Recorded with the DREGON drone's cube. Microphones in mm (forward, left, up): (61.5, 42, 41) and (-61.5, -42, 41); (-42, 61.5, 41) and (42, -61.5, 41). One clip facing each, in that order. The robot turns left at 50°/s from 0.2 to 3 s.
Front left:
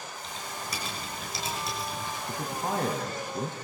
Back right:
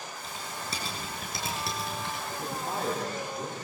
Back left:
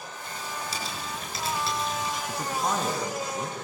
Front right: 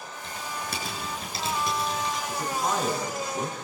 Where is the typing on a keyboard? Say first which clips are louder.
Even, front right 1 dB; 60° right, 7 m; by 2.2 s 155° right, 7 m.